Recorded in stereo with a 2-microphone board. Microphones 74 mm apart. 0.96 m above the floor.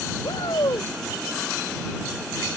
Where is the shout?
80° left.